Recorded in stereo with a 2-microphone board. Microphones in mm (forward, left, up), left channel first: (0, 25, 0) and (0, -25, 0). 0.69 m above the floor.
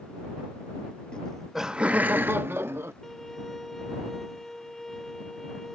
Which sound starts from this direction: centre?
A violin, at 3.0 s.